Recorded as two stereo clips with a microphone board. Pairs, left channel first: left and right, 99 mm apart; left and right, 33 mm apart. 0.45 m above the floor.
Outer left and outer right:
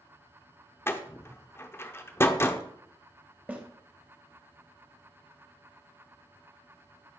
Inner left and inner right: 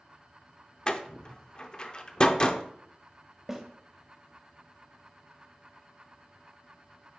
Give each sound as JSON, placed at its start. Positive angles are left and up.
{"t": 0.9, "sound": "a door slam", "side_deg": 25, "distance_m": 0.5}
{"t": 3.5, "sound": "a snare drum", "side_deg": -15, "distance_m": 1.1}